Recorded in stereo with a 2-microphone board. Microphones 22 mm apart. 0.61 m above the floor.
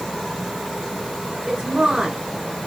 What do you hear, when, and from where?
1.5 s a woman speaking: 35° right (ahead or behind), 5 m